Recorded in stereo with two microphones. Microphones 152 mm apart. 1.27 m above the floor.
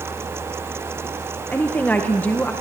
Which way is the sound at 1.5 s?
10° left (ahead or behind).